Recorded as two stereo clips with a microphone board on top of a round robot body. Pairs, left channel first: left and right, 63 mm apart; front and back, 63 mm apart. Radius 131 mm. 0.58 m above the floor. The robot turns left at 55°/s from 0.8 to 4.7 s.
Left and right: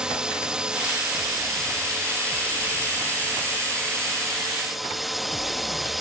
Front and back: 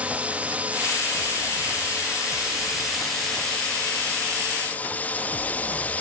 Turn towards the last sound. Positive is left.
turn(degrees=-5)